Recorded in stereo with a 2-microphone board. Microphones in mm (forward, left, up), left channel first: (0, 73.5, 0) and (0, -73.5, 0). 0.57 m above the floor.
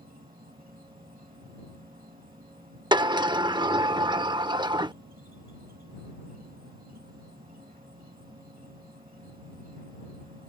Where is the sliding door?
30° right (ahead or behind).